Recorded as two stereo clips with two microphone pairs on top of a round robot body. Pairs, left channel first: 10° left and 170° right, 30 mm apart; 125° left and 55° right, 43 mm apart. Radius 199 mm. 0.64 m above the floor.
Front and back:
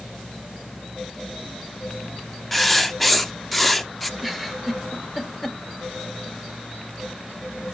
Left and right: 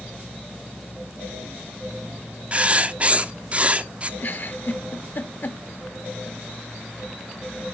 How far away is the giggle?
About 1.6 m.